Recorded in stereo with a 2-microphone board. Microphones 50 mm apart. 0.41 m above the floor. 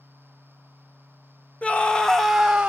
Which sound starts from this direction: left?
A scream, at 1.6 s.